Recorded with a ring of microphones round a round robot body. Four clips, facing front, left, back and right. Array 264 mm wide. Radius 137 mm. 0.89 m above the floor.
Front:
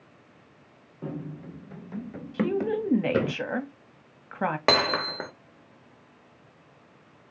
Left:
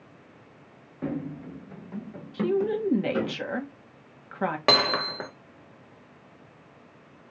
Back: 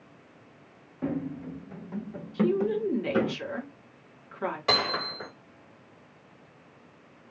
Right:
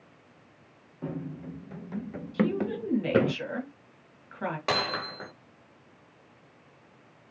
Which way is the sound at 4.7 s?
35° left.